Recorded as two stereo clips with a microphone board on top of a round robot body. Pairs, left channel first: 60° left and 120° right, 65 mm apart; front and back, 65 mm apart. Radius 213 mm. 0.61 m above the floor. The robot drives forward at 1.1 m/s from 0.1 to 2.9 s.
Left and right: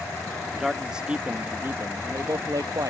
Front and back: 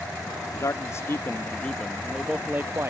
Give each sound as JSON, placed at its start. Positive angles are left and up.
{"t": 0.6, "sound": "a man speaking", "azimuth_deg": -35}